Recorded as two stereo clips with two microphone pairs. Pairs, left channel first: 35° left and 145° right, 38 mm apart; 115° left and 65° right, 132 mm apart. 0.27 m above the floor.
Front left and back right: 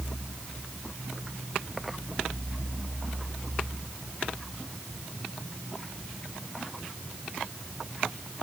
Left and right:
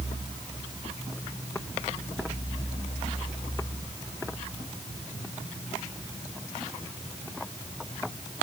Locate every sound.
Only background noise.